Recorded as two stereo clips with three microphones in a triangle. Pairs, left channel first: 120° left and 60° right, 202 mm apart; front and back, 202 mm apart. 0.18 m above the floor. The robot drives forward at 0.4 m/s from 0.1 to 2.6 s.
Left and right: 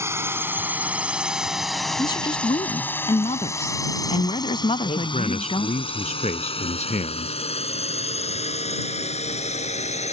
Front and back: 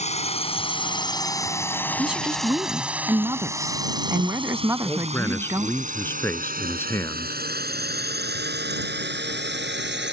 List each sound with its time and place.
0.0 s a drone: 5° left; by 10.1 s 170° left
2.0 s a woman speaking: 95° left; by 5.8 s 120° left
4.8 s a man speaking: 75° left